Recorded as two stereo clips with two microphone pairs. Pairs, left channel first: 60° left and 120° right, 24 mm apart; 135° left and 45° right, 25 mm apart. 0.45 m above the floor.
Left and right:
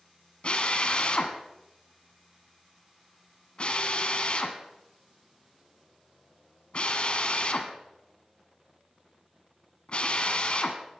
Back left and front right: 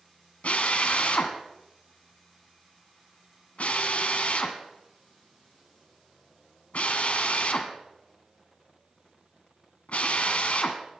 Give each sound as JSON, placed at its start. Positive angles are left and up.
{"t": 0.4, "sound": "a drill", "azimuth_deg": 110, "distance_m": 1.6}